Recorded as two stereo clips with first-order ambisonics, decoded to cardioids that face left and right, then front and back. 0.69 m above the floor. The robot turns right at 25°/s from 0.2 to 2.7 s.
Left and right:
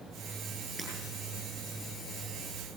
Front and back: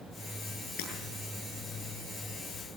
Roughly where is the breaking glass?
Ahead.